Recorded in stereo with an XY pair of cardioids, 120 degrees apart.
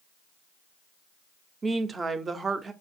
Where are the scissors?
No scissors in this recording.